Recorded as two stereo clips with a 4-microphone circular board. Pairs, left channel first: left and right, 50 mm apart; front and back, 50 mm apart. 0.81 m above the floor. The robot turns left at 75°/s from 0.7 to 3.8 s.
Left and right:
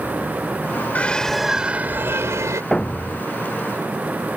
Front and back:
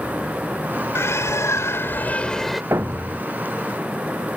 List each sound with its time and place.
0.9 s a bird: 30° left; by 2.6 s 95° right
2.7 s a thud: 165° left; by 3.2 s 125° left